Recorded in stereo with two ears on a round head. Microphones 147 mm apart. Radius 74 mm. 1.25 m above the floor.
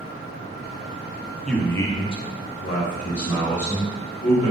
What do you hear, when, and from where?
1.5 s a man speaking: 5° left (ahead or behind), 0.5 m; by 4.5 s 45° left (ahead or behind), 1.4 m